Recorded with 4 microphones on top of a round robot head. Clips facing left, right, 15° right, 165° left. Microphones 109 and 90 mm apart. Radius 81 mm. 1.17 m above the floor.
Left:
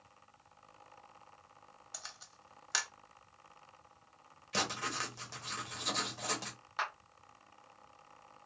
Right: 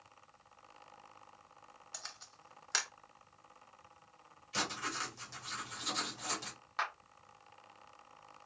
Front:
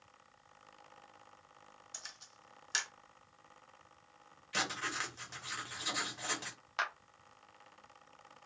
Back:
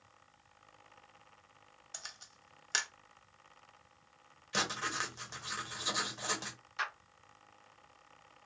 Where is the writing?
100° left, 1.1 m.